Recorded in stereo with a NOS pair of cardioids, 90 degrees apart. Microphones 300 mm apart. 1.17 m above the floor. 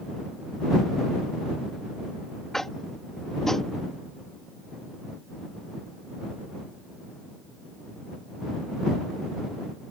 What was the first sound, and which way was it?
Tapping, straight ahead.